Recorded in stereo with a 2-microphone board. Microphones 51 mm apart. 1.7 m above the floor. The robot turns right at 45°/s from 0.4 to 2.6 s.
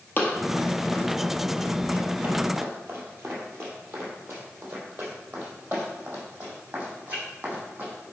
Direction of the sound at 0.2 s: 40° left (ahead or behind).